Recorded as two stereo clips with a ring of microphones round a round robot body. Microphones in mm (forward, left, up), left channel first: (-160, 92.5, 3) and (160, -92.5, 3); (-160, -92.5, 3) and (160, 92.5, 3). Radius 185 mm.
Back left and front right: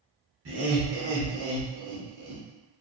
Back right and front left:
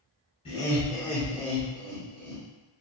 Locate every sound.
0.5 s laughter: 80° right, 1.3 m; by 2.4 s straight ahead, 1.4 m